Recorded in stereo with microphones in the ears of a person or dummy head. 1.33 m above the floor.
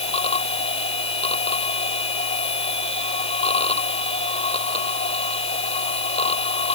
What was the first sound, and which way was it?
A machine running, 35° left (ahead or behind).